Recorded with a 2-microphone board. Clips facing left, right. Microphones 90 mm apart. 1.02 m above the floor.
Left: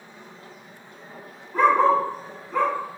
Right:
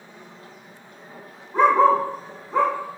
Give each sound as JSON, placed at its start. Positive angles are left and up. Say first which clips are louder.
{"t": 1.5, "sound": "a dog barking", "louder": "right 2 dB", "side_deg": -25, "distance_m": 0.8}